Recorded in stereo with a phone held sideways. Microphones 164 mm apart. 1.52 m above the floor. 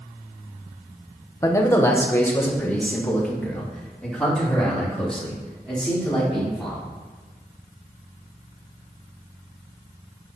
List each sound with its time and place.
1.4 s a man speaking: 20° left (ahead or behind), 1.0 m; by 6.8 s 5° left (ahead or behind), 5 m